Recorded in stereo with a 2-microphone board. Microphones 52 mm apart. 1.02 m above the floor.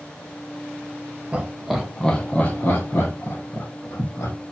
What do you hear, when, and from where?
1.3 s laughter: 25° right (ahead or behind), 0.7 m; by 4.3 s 65° left (ahead or behind), 1.4 m